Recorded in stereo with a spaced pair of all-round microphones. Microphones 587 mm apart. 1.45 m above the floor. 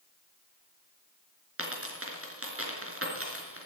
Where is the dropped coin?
20° right (ahead or behind), 4 m.